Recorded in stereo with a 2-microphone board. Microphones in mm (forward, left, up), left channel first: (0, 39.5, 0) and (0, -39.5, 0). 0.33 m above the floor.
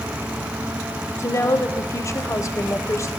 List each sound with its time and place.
1.2 s a woman speaking: 40° left (ahead or behind), 1.1 m